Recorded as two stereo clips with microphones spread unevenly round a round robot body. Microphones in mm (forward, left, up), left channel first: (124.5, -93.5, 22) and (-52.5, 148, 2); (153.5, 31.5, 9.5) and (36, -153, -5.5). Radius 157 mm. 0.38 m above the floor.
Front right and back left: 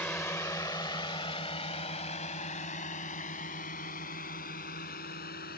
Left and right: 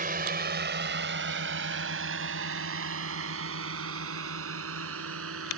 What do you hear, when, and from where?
0.0 s a drone: 140° right; by 5.6 s 115° right